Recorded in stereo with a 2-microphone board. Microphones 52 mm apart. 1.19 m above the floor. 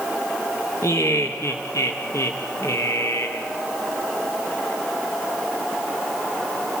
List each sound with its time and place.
0.8 s laughter: 75° left (ahead or behind), 1.4 m